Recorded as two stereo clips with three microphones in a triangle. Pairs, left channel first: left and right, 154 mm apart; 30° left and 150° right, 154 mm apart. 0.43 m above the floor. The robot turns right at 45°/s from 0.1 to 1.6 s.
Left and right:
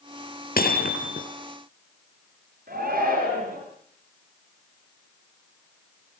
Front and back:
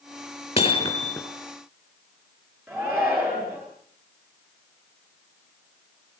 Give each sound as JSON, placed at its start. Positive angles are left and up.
{"t": 0.6, "sound": "hammering", "azimuth_deg": 75, "distance_m": 3.5}
{"t": 2.7, "sound": "a shout", "azimuth_deg": -65, "distance_m": 10.0}